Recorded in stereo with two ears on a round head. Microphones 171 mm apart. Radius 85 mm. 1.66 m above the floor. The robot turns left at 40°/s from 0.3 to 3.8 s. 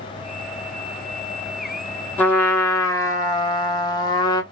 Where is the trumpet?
10° left (ahead or behind), 0.6 m; by 4.4 s 20° left (ahead or behind), 0.6 m.